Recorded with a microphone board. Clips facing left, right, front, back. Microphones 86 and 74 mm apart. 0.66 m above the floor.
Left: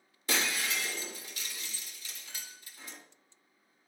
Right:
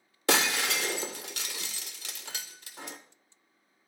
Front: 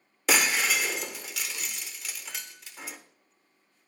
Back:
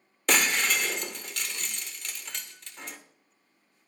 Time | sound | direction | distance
0.3 | breaking glass | 85° right | 0.9 m